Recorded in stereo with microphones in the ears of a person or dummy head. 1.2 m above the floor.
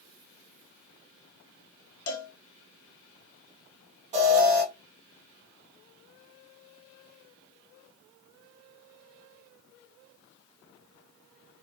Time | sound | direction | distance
2.1 | a cowbell | 65° left (ahead or behind) | 1.9 m
4.1 | an alarm | 25° right (ahead or behind) | 1.3 m